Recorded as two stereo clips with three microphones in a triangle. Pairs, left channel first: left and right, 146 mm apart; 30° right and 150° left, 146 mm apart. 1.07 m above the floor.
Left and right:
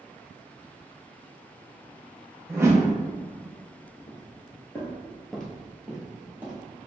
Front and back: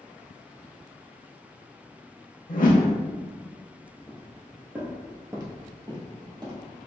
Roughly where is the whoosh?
Ahead.